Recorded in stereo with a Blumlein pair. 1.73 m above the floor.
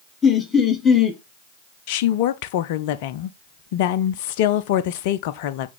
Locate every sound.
0.2 s laughter: 15° left, 1.4 m
1.9 s a woman speaking: 50° left, 0.7 m